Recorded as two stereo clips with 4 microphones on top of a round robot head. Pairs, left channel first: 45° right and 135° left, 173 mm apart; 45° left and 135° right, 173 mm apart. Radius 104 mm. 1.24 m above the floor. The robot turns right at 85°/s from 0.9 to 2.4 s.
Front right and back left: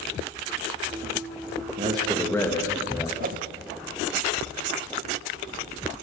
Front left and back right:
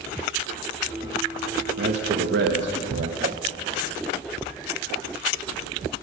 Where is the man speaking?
170° right, 1.9 m; by 3.1 s 120° right, 1.9 m.